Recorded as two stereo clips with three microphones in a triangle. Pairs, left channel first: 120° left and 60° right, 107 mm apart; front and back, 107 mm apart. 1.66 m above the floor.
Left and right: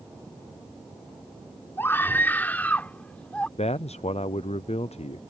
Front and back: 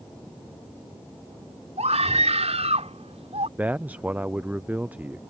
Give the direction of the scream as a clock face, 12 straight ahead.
6 o'clock.